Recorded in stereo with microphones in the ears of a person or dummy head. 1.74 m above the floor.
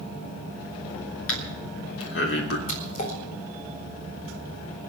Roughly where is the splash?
Left.